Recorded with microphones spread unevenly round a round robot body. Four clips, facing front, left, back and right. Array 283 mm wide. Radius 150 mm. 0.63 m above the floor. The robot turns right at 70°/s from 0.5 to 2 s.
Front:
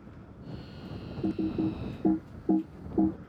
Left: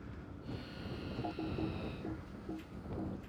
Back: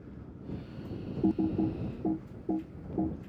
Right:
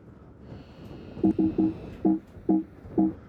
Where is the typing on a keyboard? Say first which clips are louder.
Right 18 dB, back 1 dB; 110° right; by 3.2 s 55° right.